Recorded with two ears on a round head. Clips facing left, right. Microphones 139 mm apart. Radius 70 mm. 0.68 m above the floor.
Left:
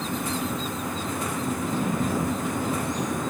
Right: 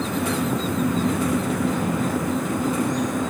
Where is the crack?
I don't hear a crack.